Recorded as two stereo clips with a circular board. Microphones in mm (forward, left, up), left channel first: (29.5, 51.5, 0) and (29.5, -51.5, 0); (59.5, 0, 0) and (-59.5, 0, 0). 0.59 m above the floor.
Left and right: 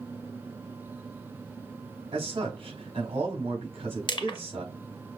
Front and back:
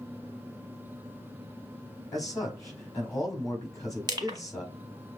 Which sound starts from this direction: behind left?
Crushing, at 4.1 s.